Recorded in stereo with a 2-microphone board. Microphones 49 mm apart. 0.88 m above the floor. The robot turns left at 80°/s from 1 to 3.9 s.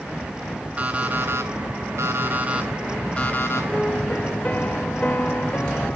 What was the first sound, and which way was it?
An alarm clock, 30° right.